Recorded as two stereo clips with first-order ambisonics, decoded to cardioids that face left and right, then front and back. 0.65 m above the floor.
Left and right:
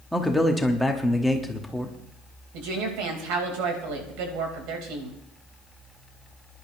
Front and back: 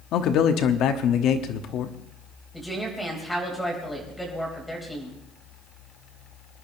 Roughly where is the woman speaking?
Right.